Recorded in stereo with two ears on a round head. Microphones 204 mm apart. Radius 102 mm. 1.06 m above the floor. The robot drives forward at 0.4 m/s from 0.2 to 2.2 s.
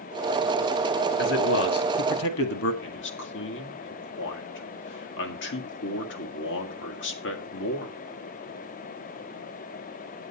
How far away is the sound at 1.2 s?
About 1.6 m.